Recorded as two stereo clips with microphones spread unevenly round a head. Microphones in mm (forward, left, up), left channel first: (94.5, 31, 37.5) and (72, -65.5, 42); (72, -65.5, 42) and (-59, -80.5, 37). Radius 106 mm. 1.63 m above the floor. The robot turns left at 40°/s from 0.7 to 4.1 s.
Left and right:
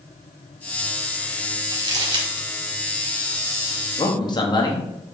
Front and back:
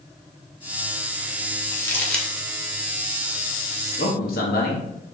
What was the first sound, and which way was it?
Crumpling, 55° right.